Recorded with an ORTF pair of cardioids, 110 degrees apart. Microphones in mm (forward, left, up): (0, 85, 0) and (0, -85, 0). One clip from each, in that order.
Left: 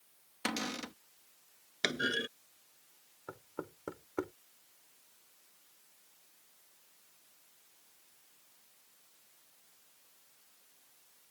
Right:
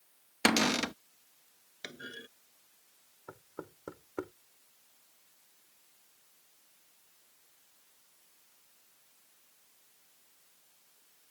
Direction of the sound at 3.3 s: 10° left.